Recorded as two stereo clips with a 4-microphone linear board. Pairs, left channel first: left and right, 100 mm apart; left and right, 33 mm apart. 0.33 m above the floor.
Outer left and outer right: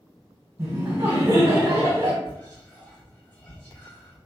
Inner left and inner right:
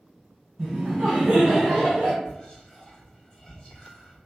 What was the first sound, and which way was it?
Laughter, 40° right (ahead or behind).